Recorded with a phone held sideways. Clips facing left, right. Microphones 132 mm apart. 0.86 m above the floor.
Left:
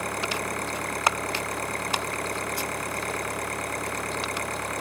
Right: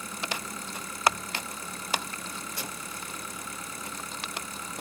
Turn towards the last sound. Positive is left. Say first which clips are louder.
# left 7 dB
turn(degrees=80)